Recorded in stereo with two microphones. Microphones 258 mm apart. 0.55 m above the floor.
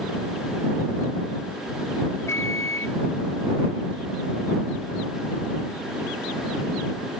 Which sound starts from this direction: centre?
A microwave, at 2.3 s.